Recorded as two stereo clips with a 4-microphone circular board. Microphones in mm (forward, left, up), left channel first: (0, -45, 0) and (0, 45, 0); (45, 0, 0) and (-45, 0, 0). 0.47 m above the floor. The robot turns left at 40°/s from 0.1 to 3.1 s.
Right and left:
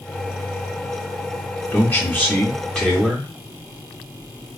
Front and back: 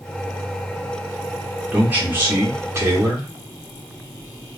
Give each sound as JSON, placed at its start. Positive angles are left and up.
{"t": 1.7, "sound": "a man speaking", "azimuth_deg": -115, "distance_m": 1.3}